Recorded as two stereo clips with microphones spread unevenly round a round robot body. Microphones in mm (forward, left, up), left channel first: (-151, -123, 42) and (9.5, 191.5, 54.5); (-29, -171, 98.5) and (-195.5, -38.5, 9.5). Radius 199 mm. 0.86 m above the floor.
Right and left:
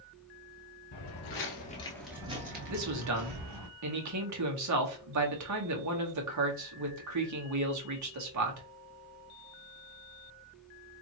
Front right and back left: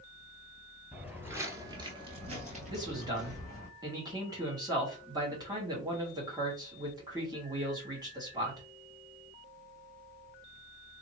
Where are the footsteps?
115° right, 1.1 m; by 3.7 s 60° left, 1.4 m.